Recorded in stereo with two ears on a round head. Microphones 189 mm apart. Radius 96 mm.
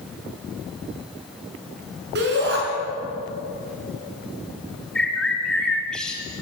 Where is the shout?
50° right (ahead or behind), 5 m.